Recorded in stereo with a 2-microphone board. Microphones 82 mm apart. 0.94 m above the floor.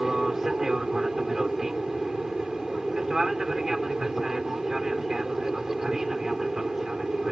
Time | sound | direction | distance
0.0 | an aircraft | 5° right (ahead or behind) | ?